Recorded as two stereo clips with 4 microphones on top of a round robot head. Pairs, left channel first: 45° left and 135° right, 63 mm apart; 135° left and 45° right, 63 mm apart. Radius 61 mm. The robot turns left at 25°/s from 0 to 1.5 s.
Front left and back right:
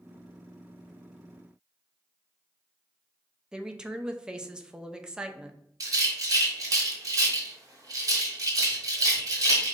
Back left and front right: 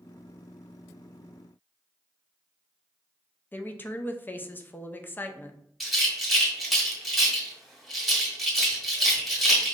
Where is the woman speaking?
160° left, 0.6 m.